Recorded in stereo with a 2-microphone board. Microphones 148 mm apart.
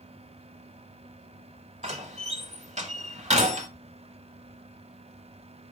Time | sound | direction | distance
1.8 | a door slam | 55° right (ahead or behind) | 1.2 m